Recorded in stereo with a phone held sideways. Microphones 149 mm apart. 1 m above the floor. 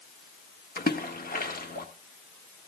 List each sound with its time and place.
0.8 s a splash: 80° left, 1.5 m